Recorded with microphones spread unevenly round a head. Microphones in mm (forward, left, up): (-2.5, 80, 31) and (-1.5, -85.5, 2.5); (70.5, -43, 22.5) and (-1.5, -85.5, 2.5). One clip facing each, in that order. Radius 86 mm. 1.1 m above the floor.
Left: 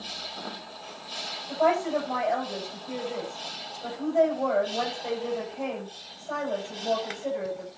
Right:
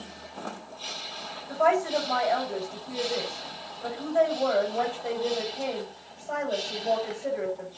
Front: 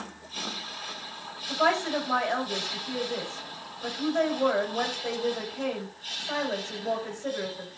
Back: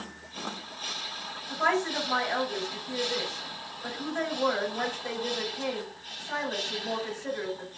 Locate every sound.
1.5 s a woman speaking: 5° right, 6.5 m